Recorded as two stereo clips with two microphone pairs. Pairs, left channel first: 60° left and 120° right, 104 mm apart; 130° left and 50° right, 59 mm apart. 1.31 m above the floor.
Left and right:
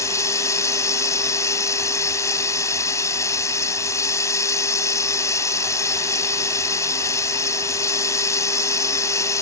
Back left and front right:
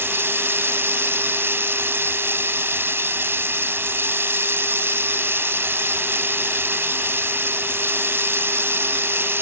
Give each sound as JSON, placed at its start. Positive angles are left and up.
{"t": 0.0, "sound": "running water", "azimuth_deg": 0}